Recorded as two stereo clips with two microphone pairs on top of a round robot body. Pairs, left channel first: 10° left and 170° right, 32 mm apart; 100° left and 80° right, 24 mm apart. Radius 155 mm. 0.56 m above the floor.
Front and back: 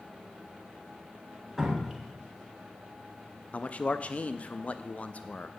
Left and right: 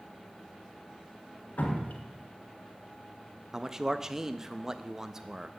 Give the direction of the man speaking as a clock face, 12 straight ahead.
1 o'clock.